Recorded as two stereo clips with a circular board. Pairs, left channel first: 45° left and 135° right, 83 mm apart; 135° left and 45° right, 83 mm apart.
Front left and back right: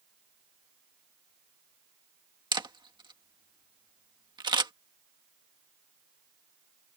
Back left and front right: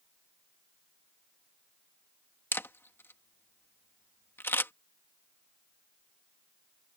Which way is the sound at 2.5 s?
160° right.